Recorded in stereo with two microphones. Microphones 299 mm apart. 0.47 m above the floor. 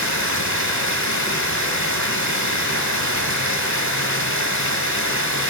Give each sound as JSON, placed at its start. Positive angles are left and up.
{"t": 0.0, "sound": "running water", "side_deg": 70, "distance_m": 1.0}